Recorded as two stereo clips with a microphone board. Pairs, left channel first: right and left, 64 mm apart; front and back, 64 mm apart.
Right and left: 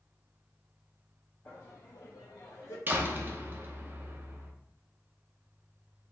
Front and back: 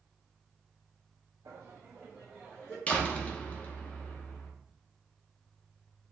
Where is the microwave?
I don't hear a microwave.